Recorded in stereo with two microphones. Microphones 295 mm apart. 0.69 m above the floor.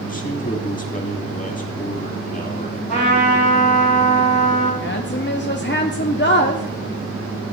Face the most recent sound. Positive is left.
turn(degrees=40)  # may be behind; listen again after turning